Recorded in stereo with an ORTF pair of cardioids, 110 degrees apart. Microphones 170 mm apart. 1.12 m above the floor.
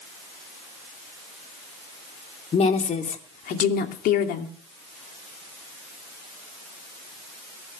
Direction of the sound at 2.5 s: 40° left.